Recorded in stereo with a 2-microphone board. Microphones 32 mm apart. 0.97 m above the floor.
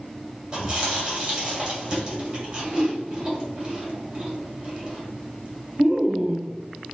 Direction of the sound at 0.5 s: 25° right (ahead or behind).